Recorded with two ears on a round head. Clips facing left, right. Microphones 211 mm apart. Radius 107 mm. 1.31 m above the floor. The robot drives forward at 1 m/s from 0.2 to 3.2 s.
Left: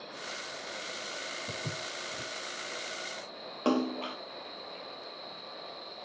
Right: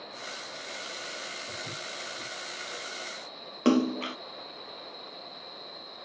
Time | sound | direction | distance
1.5 | footsteps | 40° left (ahead or behind) | 2.5 m
3.6 | a splash | 30° right (ahead or behind) | 0.8 m